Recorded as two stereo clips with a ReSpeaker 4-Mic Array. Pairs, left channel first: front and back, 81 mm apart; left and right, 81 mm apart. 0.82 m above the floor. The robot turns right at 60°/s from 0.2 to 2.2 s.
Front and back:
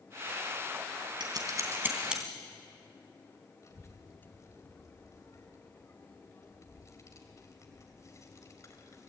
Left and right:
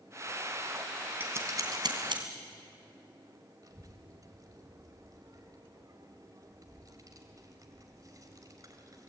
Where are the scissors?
155° right, 3 m; by 2.2 s 95° right, 3 m.